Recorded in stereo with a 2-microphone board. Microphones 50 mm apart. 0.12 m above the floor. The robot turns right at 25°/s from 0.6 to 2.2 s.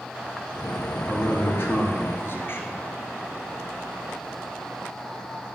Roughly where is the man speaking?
Left.